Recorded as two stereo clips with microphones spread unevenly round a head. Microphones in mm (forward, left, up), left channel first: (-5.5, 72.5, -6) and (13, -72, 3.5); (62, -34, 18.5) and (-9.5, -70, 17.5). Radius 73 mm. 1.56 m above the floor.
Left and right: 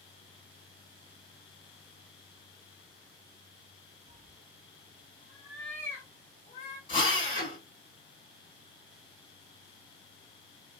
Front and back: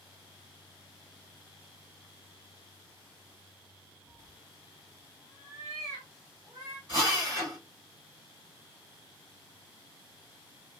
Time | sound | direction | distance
4.1 | a cat meowing | 75° right | 1.0 m
6.9 | a drill | 150° left | 1.9 m